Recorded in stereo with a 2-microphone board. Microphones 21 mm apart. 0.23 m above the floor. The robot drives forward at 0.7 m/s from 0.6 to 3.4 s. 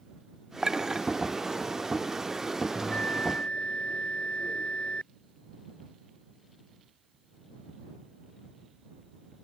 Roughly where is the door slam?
I don't hear a door slam.